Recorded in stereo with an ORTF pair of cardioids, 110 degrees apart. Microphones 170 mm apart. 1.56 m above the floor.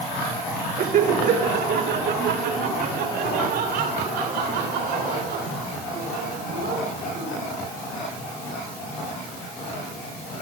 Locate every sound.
0.8 s laughter: 50° right, 1.9 m; by 7.4 s 80° right, 9.5 m